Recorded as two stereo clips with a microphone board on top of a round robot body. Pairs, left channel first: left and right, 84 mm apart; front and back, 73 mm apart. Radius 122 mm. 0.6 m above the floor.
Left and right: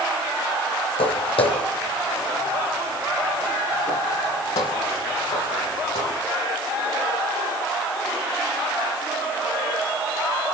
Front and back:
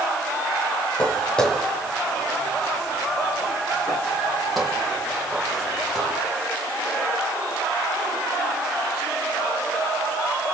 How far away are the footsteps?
About 1.5 m.